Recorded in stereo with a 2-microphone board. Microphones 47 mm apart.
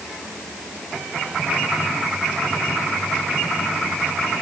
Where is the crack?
I don't hear a crack.